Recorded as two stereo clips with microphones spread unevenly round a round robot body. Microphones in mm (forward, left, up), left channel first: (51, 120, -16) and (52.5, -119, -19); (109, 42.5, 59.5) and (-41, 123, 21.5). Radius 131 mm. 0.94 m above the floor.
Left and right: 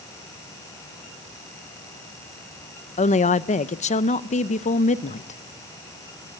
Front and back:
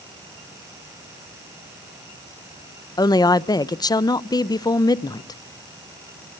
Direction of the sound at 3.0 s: 45° left.